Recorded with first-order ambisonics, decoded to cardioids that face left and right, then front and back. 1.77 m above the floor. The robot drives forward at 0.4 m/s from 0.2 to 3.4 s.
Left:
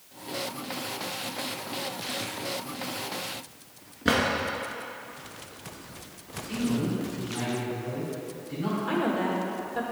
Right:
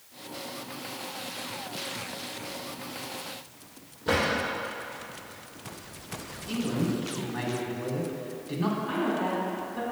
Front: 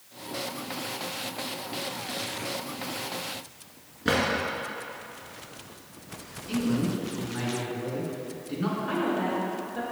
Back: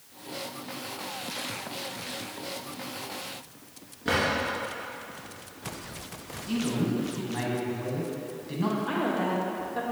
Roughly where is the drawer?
Left.